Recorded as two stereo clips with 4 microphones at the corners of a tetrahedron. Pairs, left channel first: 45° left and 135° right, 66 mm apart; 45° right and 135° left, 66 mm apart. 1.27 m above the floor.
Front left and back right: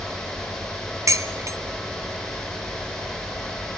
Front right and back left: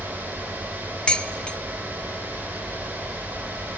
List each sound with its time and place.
1.1 s dishes clattering: 115° right, 0.6 m